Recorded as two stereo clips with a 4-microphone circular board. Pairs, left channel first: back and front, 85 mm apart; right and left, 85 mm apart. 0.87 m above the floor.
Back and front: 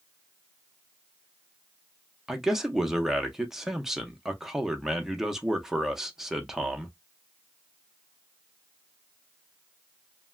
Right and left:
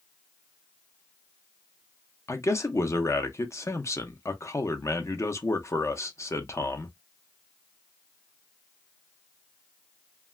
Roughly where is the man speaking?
Right.